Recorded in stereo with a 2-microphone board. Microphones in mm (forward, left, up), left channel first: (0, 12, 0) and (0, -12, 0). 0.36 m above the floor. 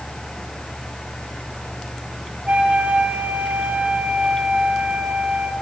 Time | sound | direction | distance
2.5 | a flute | 75° right (ahead or behind) | 3 m